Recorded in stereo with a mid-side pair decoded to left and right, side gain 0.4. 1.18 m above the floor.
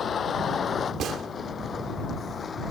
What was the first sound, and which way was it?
A vehicle, 55° left.